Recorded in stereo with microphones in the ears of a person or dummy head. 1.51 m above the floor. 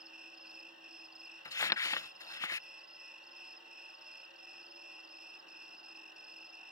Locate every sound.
0.0 s an insect: centre (ahead or behind)
1.4 s crumpling: 20° left (ahead or behind)